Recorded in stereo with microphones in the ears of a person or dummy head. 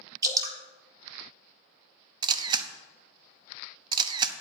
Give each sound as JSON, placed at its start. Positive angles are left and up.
{"t": 0.2, "sound": "dripping", "side_deg": -20, "distance_m": 1.1}
{"t": 2.2, "sound": "a camera shutter", "side_deg": -25, "distance_m": 0.7}